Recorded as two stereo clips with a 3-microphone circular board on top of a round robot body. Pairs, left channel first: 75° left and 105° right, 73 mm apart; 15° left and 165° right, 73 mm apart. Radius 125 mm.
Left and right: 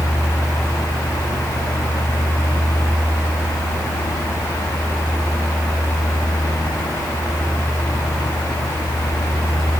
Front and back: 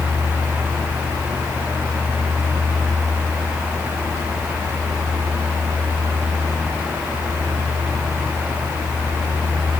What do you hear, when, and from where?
Only background noise.